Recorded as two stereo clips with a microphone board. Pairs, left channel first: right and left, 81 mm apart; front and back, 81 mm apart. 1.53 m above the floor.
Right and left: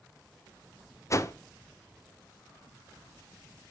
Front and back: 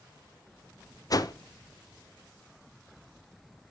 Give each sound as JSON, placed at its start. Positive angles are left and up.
{"t": 1.1, "sound": "a whoosh", "azimuth_deg": -40, "distance_m": 0.5}